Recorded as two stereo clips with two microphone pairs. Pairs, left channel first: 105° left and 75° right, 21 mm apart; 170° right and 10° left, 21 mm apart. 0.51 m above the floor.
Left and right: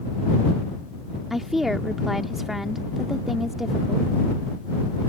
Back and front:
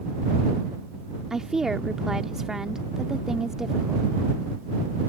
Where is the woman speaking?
15° right.